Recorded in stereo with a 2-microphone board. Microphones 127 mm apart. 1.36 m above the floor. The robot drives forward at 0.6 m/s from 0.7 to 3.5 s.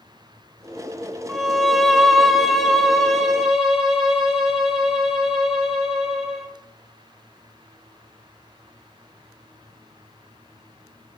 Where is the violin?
Centre (ahead or behind), 0.6 m.